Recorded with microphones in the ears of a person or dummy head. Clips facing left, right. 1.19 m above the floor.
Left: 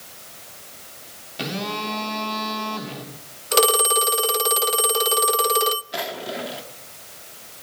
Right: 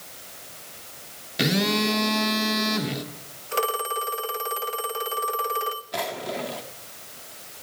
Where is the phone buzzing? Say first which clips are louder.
Right 6 dB; 20° right (ahead or behind), 2.5 m.